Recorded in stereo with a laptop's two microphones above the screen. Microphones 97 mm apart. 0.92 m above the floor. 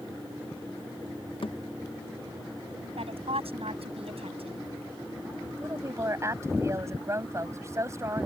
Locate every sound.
1.4 s a thud: 65° left (ahead or behind)
3.0 s a woman speaking: 85° right
5.6 s a woman speaking: 30° right (ahead or behind)